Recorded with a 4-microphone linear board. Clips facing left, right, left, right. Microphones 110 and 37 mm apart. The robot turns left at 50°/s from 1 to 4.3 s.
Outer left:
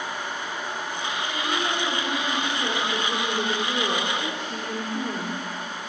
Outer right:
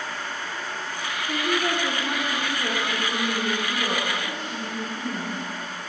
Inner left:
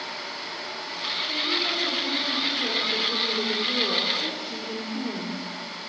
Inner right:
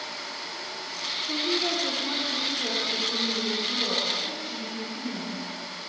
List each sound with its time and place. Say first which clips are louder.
1.3 s a woman speaking: outer right 4 dB, inner right 1 dB; 115° right, 4 m; by 5.9 s 95° left, 4 m